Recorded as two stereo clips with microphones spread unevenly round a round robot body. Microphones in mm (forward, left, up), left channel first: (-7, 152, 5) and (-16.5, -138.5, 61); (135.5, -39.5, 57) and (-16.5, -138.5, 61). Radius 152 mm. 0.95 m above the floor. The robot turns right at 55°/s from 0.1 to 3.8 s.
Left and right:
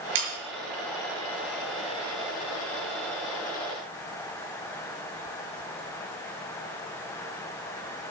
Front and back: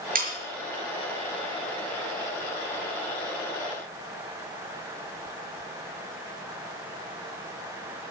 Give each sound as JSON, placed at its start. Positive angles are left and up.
{"t": 0.1, "sound": "sawing", "azimuth_deg": -110, "distance_m": 5.5}